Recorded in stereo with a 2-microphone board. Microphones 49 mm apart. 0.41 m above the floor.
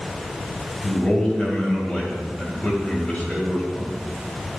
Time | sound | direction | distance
0.8 | a man speaking | 25° left (ahead or behind) | 2.5 m